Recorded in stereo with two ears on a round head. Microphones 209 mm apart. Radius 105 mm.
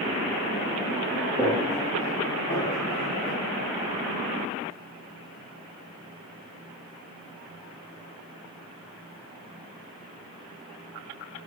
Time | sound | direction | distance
1.4 | footsteps | 20° left (ahead or behind) | 3.5 m